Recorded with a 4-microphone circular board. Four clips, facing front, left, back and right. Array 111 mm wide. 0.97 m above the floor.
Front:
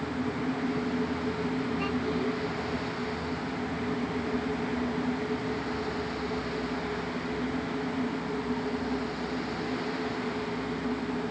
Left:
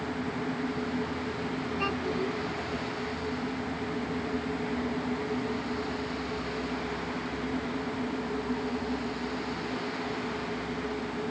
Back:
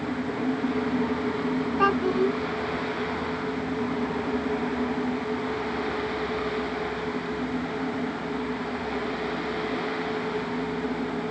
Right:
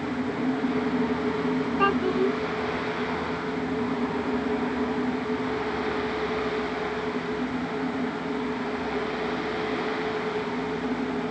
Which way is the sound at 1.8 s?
155° right.